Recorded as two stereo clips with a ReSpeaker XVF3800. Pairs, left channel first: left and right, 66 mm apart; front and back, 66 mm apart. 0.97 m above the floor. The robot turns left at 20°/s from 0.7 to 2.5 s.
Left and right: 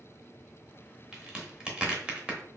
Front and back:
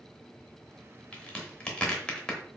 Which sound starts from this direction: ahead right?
A crack, at 1.1 s.